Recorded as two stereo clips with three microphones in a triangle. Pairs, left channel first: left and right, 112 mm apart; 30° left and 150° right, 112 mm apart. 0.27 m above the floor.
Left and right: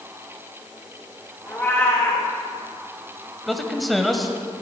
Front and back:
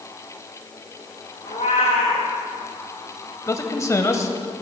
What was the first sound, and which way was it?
A cat meowing, 20° left.